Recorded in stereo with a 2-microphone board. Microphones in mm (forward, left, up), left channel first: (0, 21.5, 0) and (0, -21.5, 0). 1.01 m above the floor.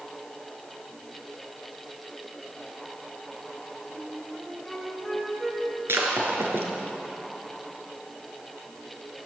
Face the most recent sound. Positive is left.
turn(degrees=-65)  # may be behind; listen again after turning